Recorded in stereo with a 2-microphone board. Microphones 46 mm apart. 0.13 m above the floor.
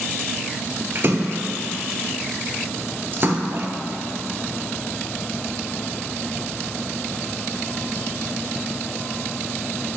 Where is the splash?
45° right (ahead or behind), 0.7 m.